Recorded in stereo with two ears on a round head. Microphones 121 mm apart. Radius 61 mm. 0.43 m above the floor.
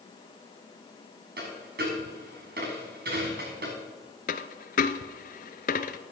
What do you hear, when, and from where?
1.4 s a dropped coin: 85° right, 6.5 m
4.3 s a dropped coin: 60° left (ahead or behind), 0.8 m